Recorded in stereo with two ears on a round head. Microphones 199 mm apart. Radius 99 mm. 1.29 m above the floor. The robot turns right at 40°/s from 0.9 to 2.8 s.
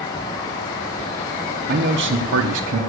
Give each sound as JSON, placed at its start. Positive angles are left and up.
{"t": 1.7, "sound": "a man speaking", "azimuth_deg": -125, "distance_m": 0.8}